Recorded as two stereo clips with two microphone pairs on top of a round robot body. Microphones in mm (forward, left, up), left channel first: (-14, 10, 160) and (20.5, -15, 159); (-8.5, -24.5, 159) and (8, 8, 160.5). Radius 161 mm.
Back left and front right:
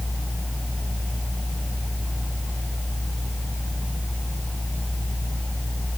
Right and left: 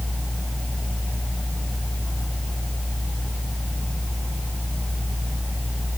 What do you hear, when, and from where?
Only background noise.